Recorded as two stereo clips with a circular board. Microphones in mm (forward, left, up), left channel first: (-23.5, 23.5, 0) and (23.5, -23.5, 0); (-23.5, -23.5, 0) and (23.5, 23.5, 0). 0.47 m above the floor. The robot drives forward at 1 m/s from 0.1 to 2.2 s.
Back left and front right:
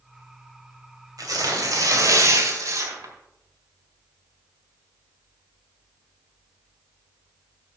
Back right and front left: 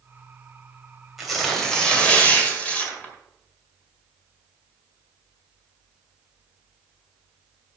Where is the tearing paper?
40° right, 2.5 m; by 3.1 s 70° right, 1.8 m.